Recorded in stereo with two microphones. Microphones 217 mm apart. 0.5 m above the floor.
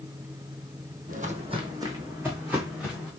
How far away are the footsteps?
About 0.7 m.